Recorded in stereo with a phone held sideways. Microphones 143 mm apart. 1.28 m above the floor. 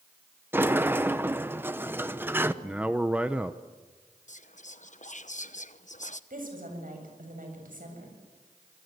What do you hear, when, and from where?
0.5 s a sliding door: 15° right (ahead or behind), 0.9 m
2.6 s a man speaking: 10° right (ahead or behind), 0.7 m
4.3 s whispering: 60° left (ahead or behind), 1.0 m
6.3 s a woman speaking: 75° right (ahead or behind), 7.5 m